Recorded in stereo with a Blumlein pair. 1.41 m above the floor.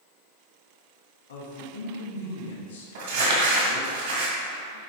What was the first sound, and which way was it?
A woman speaking, 60° left.